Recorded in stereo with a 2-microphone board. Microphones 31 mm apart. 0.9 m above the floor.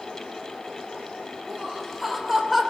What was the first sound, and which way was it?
Laughter, 5° right (ahead or behind).